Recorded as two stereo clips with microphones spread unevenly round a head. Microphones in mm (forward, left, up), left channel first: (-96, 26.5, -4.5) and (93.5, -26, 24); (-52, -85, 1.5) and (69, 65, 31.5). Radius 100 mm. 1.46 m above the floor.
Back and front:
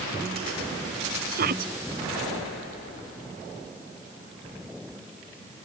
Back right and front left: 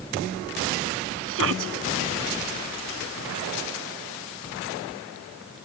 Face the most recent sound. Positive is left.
turn(degrees=30)